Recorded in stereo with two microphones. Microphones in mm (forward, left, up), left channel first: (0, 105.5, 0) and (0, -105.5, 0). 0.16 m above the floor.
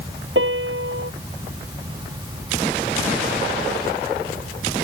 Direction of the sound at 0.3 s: 70° right (ahead or behind).